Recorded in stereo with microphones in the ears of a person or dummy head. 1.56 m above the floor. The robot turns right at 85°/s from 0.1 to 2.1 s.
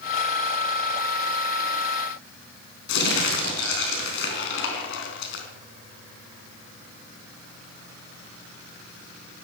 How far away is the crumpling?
About 4 m.